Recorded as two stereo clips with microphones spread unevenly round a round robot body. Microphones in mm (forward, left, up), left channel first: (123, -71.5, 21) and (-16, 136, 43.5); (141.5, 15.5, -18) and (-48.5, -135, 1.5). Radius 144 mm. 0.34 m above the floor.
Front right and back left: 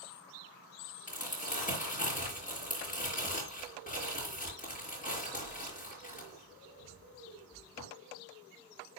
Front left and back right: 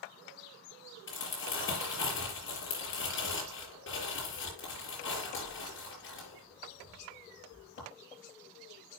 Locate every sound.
1.1 s crumpling: straight ahead, 5.5 m